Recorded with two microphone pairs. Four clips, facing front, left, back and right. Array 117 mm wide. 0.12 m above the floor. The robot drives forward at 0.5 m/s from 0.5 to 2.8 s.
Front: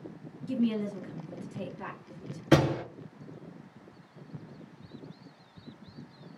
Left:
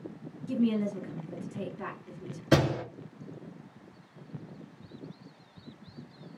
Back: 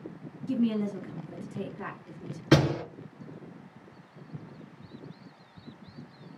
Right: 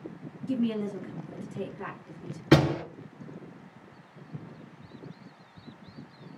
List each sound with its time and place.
0.5 s a woman speaking: 155° right, 1.3 m; by 2.4 s 170° right, 1.9 m
2.5 s a door slam: 135° right, 1.8 m; by 2.8 s 140° right, 1.9 m